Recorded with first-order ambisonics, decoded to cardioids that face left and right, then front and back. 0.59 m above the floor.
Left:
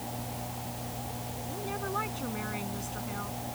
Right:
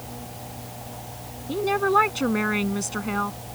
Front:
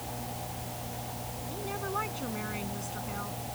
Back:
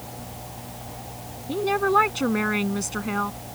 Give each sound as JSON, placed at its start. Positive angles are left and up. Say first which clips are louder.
{"t": 1.5, "sound": "a woman speaking", "louder": "right 15 dB, back 15 dB", "azimuth_deg": -135}